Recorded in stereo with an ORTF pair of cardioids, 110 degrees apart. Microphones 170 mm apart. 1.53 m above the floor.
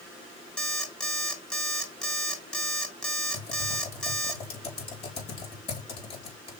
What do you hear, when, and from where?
0.6 s an alarm clock: 5° left, 2.5 m
3.3 s typing on a keyboard: 35° left, 4.5 m